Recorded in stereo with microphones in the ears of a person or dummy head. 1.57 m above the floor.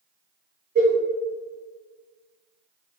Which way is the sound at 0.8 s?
60° right (ahead or behind).